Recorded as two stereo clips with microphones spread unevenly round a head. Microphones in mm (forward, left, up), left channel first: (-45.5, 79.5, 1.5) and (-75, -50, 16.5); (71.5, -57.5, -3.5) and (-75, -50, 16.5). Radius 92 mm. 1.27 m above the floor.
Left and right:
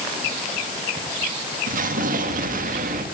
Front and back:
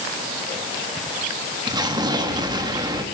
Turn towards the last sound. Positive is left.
turn(degrees=-120)